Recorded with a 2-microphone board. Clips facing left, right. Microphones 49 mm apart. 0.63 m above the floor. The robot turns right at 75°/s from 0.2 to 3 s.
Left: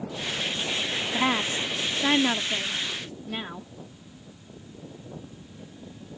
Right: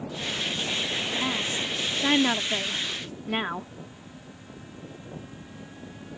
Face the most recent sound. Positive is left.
turn(degrees=-115)